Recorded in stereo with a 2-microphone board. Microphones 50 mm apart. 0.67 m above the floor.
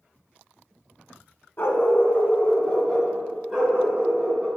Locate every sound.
1.6 s a dog barking: 55° left (ahead or behind), 1.5 m; by 4.5 s 30° right (ahead or behind), 2.5 m